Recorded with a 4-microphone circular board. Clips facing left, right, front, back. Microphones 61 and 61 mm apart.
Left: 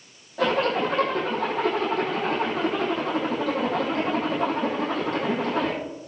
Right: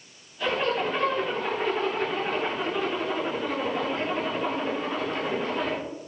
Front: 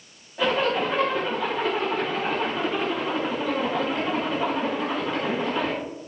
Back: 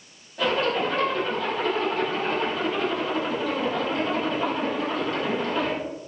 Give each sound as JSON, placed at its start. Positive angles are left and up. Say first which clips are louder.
{"t": 0.4, "sound": "a zipper", "louder": "left 4 dB, front 1 dB", "azimuth_deg": 85, "distance_m": 6.0}